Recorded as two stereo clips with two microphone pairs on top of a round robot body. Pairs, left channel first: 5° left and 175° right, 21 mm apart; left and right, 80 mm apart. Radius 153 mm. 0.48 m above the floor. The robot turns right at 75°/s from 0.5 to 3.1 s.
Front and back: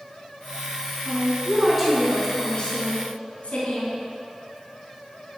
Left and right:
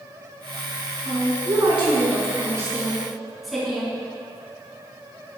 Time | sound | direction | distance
1.1 | a woman speaking | 150° right | 3 m